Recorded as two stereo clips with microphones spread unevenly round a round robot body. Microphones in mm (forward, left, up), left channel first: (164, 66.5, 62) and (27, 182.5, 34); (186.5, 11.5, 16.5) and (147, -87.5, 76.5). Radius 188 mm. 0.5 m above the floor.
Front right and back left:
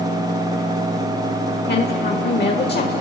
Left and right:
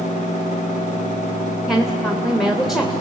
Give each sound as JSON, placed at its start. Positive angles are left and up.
{"t": 1.7, "sound": "a woman speaking", "azimuth_deg": -10, "distance_m": 2.0}